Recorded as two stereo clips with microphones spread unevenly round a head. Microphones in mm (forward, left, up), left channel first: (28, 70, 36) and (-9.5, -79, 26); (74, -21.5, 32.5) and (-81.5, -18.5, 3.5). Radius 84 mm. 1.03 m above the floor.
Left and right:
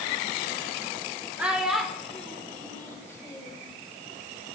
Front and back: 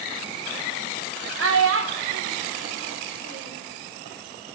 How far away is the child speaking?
About 1.5 m.